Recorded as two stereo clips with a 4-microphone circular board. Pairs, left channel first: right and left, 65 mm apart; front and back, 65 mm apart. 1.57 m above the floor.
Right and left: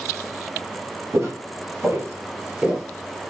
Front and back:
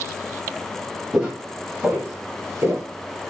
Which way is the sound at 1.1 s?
105° left.